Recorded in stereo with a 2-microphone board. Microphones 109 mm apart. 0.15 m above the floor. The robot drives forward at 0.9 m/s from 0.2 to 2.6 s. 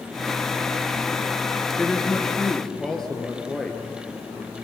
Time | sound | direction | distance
1.8 | a woman speaking | 5° left (ahead or behind) | 2.5 m